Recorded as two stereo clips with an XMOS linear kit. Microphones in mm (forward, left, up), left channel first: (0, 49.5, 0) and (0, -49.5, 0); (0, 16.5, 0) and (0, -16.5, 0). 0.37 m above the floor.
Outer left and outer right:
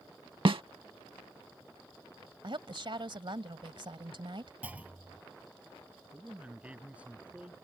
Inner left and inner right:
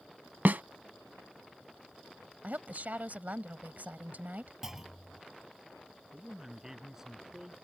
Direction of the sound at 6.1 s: 15° right (ahead or behind).